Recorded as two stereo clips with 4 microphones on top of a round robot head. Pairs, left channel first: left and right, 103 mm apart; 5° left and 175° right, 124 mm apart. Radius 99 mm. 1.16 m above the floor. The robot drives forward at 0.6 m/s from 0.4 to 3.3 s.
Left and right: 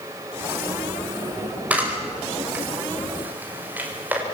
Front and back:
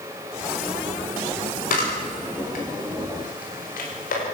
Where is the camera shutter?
15° right, 5.5 m.